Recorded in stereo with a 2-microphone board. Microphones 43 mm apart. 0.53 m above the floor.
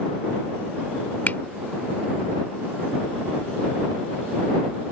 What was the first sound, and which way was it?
A finger snap, 45° left (ahead or behind).